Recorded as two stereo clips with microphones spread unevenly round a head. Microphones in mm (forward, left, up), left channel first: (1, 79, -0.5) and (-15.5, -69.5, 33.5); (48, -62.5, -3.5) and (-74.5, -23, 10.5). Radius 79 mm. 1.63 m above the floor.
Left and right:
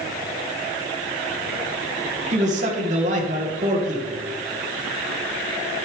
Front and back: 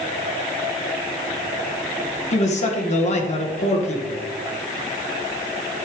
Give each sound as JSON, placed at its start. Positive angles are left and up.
{"t": 2.3, "sound": "a man speaking", "azimuth_deg": -50, "distance_m": 1.8}